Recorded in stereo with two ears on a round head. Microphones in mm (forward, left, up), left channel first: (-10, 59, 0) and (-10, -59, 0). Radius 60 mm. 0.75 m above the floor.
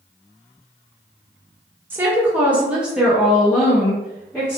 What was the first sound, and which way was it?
A woman speaking, 15° right (ahead or behind).